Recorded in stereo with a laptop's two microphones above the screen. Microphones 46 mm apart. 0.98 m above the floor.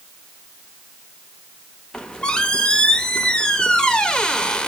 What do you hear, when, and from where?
1.9 s a squeak: 20° left (ahead or behind), 0.7 m